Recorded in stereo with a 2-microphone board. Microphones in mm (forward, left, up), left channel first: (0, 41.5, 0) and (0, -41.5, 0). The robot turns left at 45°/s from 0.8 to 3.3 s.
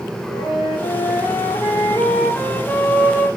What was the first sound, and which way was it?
A flute, 100° left.